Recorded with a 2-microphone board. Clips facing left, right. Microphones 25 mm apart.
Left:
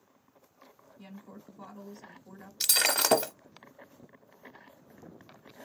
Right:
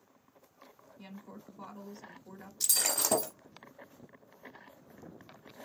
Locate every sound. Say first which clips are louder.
1.0 s a woman speaking: even; 15° right (ahead or behind), 1.6 m
2.6 s breaking glass: left 6 dB; 70° left (ahead or behind), 0.7 m